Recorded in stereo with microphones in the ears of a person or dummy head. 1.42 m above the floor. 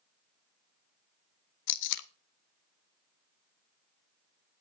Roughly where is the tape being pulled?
Left.